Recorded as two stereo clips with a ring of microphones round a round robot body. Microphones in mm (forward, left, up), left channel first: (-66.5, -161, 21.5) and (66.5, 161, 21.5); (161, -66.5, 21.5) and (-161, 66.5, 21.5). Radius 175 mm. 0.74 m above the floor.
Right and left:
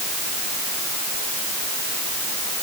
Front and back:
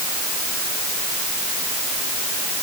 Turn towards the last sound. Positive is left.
No sound to turn to.